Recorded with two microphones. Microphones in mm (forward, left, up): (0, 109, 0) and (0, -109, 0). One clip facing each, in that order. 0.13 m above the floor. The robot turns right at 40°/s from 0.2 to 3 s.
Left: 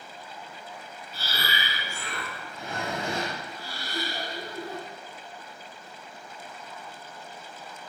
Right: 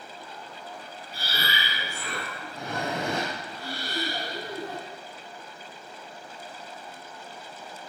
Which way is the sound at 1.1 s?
170° right.